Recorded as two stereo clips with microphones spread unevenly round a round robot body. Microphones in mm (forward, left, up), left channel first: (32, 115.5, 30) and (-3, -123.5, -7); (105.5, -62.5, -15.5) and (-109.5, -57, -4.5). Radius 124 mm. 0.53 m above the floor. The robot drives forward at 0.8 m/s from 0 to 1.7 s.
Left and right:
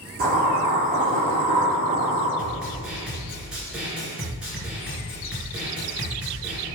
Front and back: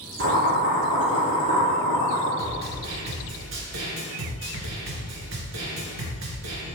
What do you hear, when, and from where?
0.2 s boiling: 155° right, 3.5 m; by 2.3 s 160° right, 4.5 m
2.4 s a snare drum: 175° left, 2.5 m